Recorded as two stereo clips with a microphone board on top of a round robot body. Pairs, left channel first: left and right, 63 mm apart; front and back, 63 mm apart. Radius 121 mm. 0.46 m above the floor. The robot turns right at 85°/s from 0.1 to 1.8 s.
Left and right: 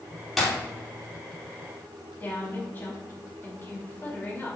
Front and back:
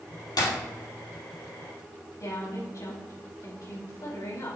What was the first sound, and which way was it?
Breaking glass, straight ahead.